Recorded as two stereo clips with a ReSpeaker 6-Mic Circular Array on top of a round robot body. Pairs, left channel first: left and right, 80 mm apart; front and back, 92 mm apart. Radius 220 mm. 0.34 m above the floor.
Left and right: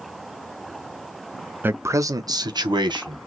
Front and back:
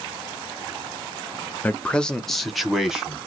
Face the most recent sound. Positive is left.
turn(degrees=-95)